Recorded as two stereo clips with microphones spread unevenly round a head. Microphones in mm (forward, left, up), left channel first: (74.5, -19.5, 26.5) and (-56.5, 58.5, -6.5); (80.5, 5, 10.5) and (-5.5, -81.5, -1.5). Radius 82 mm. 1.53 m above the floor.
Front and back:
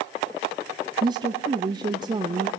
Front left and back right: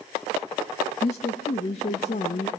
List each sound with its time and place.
1.0 s a woman speaking: 95° left, 0.5 m